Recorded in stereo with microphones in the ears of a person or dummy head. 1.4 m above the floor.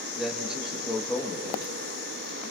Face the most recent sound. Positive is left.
turn(degrees=-5)  # may be behind; listen again after turning